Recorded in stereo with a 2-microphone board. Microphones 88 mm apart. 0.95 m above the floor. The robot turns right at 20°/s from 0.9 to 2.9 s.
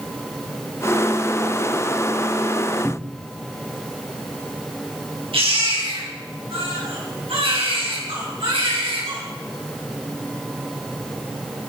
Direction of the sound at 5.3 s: 85° right.